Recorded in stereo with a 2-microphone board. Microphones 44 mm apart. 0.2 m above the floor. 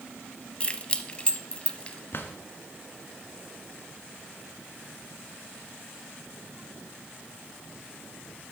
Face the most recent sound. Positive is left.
turn(degrees=55)  # may be behind; listen again after turning